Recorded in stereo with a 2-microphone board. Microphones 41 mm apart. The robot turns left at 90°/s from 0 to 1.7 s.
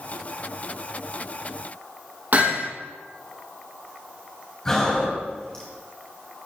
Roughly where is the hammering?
Right.